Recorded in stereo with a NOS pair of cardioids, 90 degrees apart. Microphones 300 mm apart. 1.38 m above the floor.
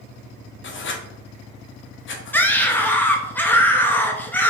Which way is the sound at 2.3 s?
5° left.